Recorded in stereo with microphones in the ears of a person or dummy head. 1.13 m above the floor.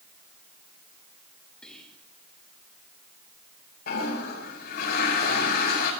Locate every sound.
1.6 s whispering: 5° left (ahead or behind), 7.5 m
3.9 s a toilet flushing: 60° left (ahead or behind), 5.5 m